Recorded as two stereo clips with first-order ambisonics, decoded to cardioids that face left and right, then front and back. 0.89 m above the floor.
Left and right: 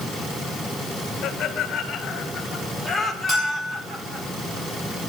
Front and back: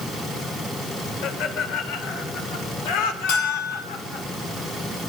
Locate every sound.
1.2 s laughter: 35° left, 3 m; by 4.3 s 30° right, 2 m
3.3 s a bell: 20° right, 7.5 m